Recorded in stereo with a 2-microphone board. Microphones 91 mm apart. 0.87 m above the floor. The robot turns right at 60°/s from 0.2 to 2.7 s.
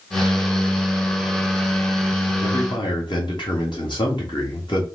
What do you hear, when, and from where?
2.4 s a man speaking: 50° left (ahead or behind), 1.4 m; by 4.8 s 60° left (ahead or behind), 1.4 m